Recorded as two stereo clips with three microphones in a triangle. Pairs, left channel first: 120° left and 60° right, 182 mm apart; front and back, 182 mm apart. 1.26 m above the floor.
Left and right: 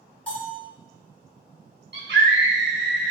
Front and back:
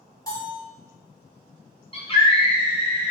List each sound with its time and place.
0.3 s a bell: 45° left, 1.1 m
1.9 s a scream: 60° right, 1.0 m